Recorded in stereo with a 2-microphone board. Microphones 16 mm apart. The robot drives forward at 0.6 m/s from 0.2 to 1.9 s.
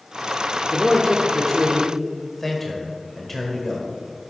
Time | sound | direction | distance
0.7 | a man speaking | 15° left (ahead or behind) | 0.8 m